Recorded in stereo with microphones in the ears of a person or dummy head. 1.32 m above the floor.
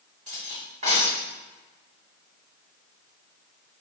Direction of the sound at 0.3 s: 45° right (ahead or behind).